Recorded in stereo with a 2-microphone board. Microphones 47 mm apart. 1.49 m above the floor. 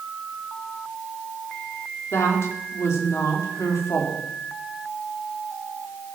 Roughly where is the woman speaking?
Left.